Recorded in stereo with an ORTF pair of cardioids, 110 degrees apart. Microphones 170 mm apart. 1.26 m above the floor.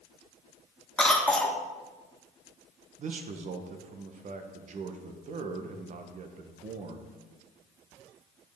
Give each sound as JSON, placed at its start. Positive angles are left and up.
{"t": 1.0, "sound": "a cough", "azimuth_deg": 5, "distance_m": 1.0}
{"t": 3.0, "sound": "a man speaking", "azimuth_deg": -50, "distance_m": 1.0}